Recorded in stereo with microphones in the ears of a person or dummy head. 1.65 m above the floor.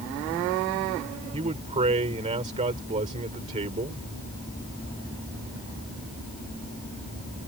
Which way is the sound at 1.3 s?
30° right (ahead or behind).